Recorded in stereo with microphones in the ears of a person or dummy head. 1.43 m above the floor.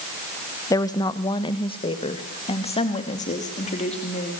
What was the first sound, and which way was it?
A woman speaking, 15° left (ahead or behind).